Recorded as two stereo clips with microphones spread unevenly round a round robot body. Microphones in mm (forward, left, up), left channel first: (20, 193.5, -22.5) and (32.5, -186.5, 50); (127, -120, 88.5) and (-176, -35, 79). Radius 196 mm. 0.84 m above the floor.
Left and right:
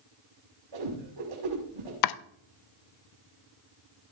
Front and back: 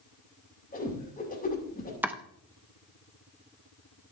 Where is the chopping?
80° left, 0.7 m.